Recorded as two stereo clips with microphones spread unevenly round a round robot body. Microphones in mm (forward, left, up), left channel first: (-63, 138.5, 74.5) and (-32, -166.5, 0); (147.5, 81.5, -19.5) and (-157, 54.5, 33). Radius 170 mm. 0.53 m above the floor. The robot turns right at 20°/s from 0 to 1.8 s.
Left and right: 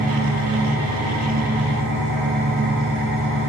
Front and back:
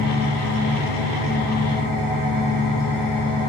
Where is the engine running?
175° right, 6 m; by 3.5 s 140° right, 6 m.